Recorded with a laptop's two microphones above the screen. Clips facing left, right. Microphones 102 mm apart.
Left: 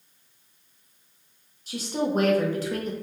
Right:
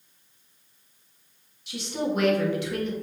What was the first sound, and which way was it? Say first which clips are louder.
A woman speaking: left 2 dB; 40° left (ahead or behind).